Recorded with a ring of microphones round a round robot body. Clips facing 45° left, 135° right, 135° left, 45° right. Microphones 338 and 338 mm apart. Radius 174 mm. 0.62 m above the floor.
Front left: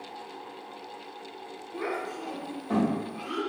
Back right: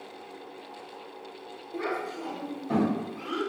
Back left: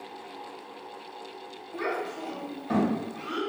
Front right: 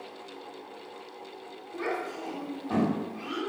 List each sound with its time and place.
1.7 s a child speaking: 170° left, 1.6 m